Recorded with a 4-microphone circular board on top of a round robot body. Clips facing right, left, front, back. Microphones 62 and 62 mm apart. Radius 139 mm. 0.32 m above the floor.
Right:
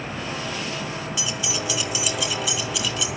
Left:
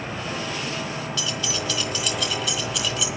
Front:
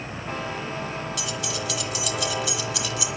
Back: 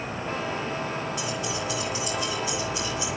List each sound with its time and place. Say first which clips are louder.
1.2 s keys jangling: even, back 1 dB; 15° right, 3.5 m; by 3.1 s straight ahead, 3.5 m